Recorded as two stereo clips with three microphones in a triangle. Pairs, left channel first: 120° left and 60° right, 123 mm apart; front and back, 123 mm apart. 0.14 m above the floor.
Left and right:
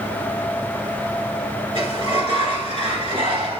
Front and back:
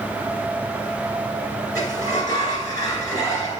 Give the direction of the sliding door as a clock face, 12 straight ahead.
2 o'clock.